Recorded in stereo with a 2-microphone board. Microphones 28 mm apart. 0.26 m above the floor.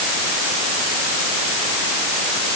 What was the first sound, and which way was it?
Only background noise.